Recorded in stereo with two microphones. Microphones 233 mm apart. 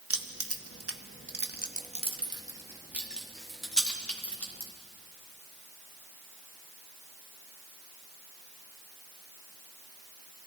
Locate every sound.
0.1 s keys jangling: 75° right (ahead or behind), 0.9 m; by 4.7 s 10° left (ahead or behind), 2 m